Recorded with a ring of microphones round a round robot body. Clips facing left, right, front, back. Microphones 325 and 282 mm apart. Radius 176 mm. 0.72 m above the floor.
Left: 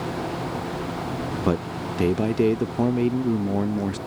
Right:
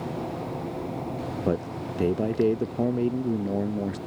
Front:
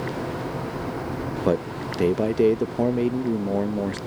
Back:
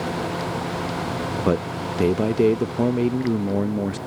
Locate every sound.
1.4 s a man speaking: 120° left